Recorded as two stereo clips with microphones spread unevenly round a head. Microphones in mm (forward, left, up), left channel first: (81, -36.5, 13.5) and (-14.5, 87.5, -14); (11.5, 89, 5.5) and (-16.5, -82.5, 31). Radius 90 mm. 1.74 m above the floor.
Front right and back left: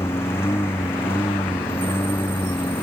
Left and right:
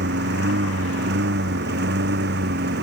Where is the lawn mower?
130° right; by 2.8 s 135° right.